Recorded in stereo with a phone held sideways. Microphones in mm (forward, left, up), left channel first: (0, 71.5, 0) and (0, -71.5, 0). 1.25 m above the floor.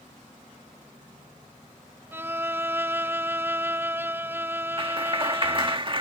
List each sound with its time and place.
2.1 s a violin: 15° right (ahead or behind)
4.8 s a clap: 35° right (ahead or behind)